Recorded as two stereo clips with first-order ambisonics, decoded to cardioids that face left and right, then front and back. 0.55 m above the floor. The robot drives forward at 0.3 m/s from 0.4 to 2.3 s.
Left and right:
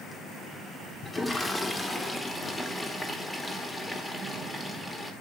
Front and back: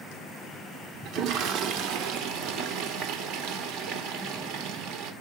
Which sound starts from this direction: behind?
A toilet flushing, at 1.1 s.